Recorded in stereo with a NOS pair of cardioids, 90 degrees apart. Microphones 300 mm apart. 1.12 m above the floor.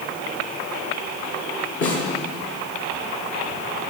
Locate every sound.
1.8 s a snare drum: 55° left, 4.5 m